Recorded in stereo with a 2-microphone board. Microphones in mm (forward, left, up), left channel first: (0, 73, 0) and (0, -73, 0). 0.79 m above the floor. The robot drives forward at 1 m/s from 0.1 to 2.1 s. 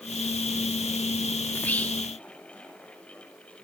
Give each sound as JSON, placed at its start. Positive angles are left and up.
{"t": 1.5, "sound": "whispering", "side_deg": 15, "distance_m": 1.5}